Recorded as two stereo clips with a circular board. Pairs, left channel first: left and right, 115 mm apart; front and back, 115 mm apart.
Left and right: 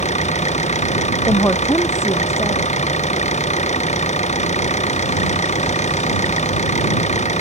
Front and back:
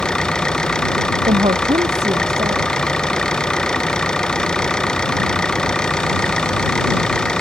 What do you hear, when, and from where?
0.0 s an engine running: 85° left
1.3 s a woman speaking: 155° left